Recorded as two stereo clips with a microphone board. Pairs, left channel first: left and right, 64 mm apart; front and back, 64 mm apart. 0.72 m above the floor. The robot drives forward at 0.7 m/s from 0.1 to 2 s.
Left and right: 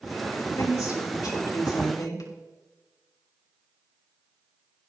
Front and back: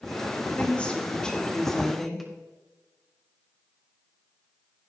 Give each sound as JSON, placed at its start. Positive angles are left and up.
{"t": 0.3, "sound": "a woman speaking", "azimuth_deg": 65, "distance_m": 3.5}